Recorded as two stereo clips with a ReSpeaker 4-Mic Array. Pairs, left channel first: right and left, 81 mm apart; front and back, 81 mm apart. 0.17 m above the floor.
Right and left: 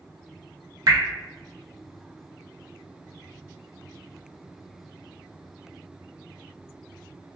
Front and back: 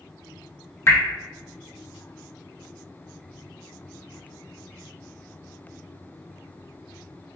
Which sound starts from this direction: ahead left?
Dripping, at 0.9 s.